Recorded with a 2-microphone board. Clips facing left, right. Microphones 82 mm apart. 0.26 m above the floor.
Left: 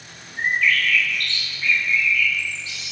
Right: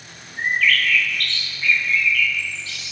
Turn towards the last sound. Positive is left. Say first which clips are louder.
# right 1 dB
turn(degrees=20)  # may be behind; listen again after turning